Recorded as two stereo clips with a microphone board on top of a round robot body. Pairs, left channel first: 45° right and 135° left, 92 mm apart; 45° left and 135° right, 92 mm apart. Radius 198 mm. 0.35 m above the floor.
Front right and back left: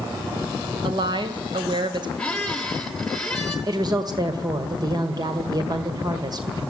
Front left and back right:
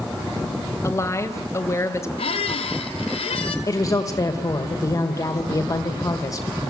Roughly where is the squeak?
Ahead left.